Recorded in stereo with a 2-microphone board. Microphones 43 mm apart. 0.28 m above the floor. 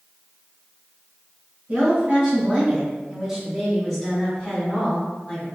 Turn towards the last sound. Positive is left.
turn(degrees=35)  # may be behind; listen again after turning